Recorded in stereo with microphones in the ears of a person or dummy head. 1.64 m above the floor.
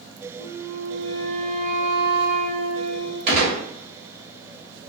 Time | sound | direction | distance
0.4 | a flute | 65° right (ahead or behind) | 1.0 m
3.3 | a gunshot | 50° right (ahead or behind) | 1.0 m